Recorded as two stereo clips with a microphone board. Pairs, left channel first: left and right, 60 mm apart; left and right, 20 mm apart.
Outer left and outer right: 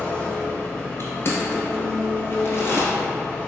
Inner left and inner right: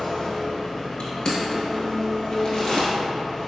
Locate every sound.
0.0 s an engine running: 25° left (ahead or behind), 1.1 m
1.0 s crushing: 45° left (ahead or behind), 1.0 m